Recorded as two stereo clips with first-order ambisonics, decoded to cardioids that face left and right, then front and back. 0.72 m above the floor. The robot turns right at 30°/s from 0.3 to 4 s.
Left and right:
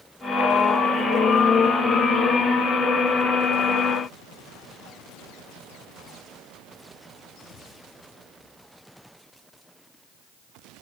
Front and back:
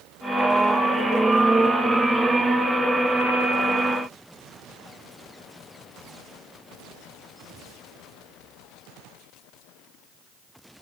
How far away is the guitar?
No guitar in this recording.